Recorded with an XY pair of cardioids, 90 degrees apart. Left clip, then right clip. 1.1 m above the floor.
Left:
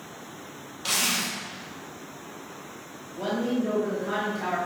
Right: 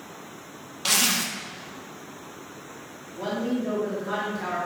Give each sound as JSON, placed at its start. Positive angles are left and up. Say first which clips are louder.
{"t": 0.8, "sound": "a zipper", "louder": "right 3 dB", "azimuth_deg": -50, "distance_m": 0.9}
{"t": 3.2, "sound": "a woman speaking", "louder": "left 1 dB", "azimuth_deg": 5, "distance_m": 1.4}